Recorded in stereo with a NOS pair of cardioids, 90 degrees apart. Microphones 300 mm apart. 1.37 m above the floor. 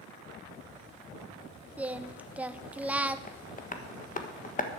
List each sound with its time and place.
1.8 s singing: 5° right, 0.6 m
3.3 s tapping: 25° left, 1.4 m